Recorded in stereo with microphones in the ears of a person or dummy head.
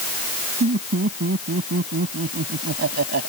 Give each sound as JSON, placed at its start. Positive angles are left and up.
{"t": 0.6, "sound": "laughter", "side_deg": -45}